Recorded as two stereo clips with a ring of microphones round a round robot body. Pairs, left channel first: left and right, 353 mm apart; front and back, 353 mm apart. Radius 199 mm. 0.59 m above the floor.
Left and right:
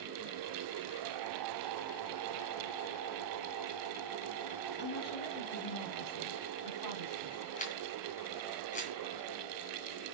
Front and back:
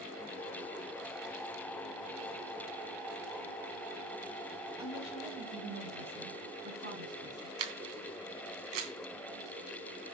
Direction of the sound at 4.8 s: 105° left.